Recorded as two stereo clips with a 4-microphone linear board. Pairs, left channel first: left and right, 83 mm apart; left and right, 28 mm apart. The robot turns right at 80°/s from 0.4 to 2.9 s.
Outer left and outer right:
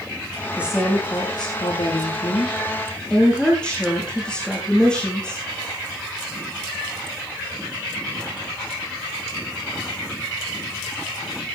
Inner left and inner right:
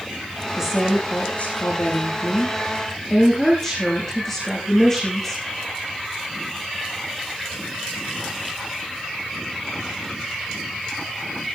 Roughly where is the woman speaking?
Ahead.